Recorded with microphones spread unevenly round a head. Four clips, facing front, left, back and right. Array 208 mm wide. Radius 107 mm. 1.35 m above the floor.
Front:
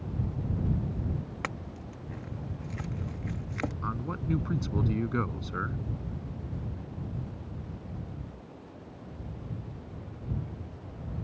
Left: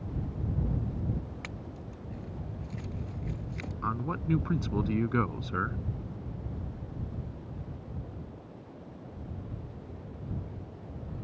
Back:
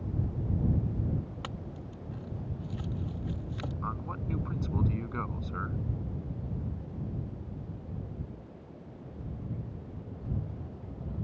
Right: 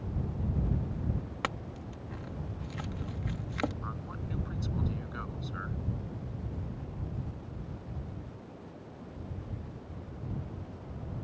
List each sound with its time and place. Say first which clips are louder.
1.4 s a clink: right 5 dB, front 3 dB; 55° right
3.8 s a man speaking: left 8 dB, front 3 dB; 60° left